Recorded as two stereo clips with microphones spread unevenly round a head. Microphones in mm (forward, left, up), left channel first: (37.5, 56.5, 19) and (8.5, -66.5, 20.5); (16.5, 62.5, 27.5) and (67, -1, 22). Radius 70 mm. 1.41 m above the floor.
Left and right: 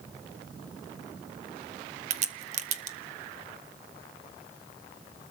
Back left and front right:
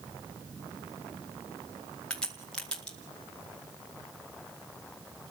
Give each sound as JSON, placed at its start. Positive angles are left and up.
{"t": 2.1, "sound": "a crack", "azimuth_deg": -150, "distance_m": 0.9}